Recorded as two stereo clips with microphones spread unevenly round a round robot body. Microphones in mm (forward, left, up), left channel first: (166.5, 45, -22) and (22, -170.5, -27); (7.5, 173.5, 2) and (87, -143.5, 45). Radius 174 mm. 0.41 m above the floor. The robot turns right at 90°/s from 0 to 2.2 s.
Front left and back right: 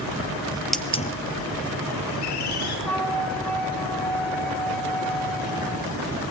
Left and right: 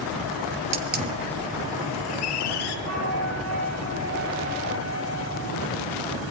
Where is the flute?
30° right, 4.5 m.